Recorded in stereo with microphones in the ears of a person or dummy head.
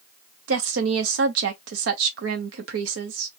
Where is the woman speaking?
85° right, 0.8 m.